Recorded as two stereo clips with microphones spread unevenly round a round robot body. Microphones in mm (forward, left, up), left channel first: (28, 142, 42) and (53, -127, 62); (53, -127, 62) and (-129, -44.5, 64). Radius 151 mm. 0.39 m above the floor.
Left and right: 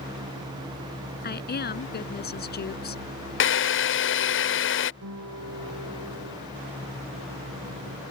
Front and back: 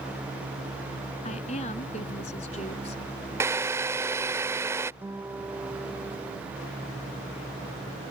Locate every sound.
1.2 s a woman speaking: 40° left
3.4 s a drill: 80° left
5.0 s a guitar: 125° right